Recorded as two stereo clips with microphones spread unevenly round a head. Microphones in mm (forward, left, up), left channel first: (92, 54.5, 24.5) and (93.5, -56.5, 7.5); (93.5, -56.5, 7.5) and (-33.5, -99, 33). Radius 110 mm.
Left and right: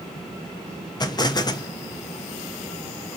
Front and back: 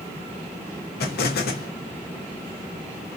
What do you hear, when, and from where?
1.0 s an explosion: 40° left, 0.7 m